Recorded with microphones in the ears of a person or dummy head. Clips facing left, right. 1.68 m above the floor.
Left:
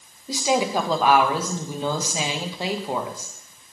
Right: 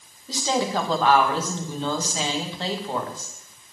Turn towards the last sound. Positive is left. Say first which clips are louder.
# left 2 dB
turn(degrees=10)  # may be behind; listen again after turning